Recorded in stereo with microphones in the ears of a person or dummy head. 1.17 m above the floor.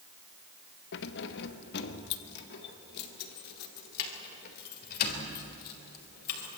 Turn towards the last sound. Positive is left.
turn(degrees=50)  # may be behind; listen again after turning